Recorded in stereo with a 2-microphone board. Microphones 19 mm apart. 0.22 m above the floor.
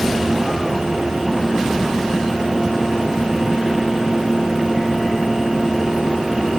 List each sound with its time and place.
Only background noise.